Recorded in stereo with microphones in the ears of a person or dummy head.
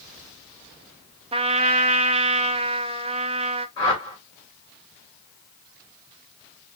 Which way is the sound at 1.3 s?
30° right (ahead or behind).